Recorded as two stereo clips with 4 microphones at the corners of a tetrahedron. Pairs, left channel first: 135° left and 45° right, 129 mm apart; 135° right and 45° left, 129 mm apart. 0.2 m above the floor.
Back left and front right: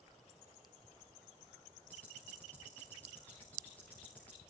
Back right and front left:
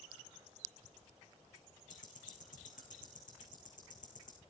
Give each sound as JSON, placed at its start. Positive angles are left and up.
{"t": 1.9, "sound": "ticking", "azimuth_deg": -145, "distance_m": 3.5}